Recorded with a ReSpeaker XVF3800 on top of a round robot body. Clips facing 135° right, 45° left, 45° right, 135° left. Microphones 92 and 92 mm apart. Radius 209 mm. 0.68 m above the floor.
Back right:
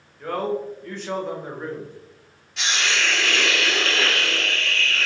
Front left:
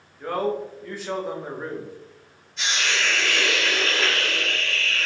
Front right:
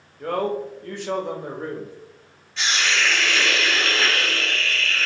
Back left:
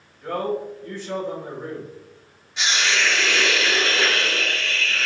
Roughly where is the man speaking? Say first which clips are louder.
Even, front right 1 dB; ahead right.